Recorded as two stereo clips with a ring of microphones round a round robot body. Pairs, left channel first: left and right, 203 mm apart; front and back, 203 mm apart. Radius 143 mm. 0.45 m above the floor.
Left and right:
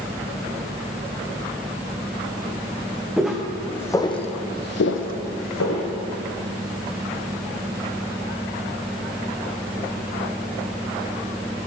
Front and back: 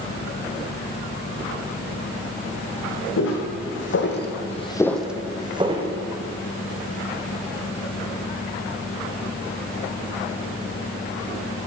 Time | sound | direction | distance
3.2 | footsteps | 5° right | 2.5 m